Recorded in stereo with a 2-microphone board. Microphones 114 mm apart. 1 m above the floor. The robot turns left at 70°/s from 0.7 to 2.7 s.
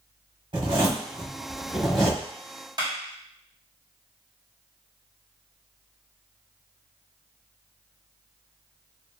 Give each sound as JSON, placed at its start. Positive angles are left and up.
{"t": 0.5, "sound": "a zipper", "side_deg": -45, "distance_m": 1.1}
{"t": 2.8, "sound": "a clap", "side_deg": -40, "distance_m": 1.6}